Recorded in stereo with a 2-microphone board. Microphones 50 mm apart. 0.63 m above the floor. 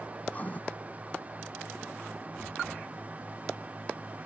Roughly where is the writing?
Left.